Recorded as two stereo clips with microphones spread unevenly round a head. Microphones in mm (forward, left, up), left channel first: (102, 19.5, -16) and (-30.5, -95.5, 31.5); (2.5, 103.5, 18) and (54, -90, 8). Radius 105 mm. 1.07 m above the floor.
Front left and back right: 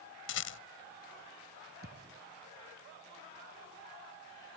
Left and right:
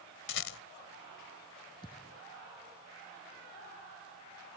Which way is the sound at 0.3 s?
80° left.